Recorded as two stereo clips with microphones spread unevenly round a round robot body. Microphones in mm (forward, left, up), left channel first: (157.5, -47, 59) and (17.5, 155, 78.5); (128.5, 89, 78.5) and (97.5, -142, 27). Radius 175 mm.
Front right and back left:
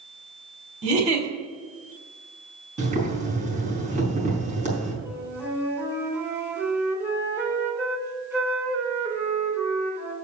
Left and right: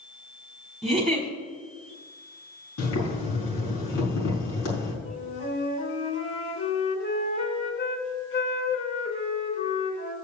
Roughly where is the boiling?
Ahead left.